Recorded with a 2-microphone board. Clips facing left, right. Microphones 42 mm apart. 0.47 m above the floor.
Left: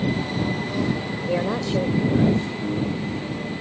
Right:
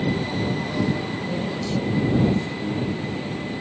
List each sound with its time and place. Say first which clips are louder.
1.3 s a woman speaking: left 6 dB; 60° left (ahead or behind); by 2.5 s 55° left (ahead or behind)
2.6 s a piano: left 1 dB; 15° left (ahead or behind)